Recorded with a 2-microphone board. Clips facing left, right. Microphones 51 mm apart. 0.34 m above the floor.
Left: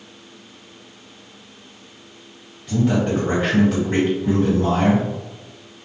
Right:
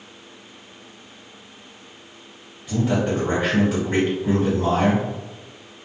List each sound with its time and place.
2.7 s a man speaking: centre (ahead or behind), 1.4 m